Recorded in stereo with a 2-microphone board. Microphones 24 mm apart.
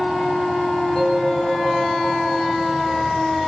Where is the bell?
30° left (ahead or behind), 5 m.